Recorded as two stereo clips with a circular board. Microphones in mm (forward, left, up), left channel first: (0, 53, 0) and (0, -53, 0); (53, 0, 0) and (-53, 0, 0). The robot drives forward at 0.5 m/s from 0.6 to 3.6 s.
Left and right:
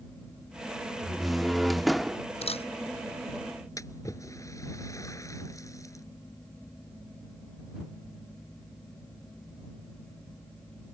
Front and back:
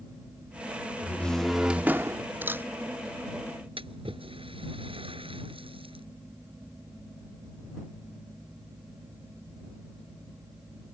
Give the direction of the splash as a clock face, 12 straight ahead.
7 o'clock.